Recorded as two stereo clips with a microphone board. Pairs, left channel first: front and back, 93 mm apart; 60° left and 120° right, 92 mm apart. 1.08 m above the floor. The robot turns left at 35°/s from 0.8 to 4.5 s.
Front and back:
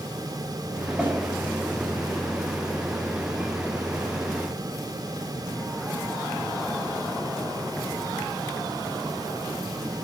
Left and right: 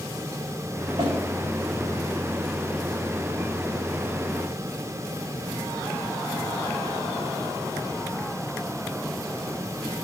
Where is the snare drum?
110° right, 3 m; by 1.1 s 115° right, 3 m.